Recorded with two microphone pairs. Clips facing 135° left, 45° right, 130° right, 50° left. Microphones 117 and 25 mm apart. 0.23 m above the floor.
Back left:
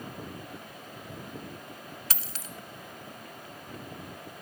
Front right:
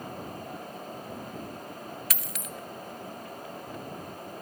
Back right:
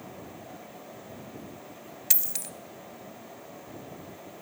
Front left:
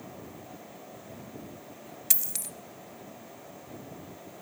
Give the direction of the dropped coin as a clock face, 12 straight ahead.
7 o'clock.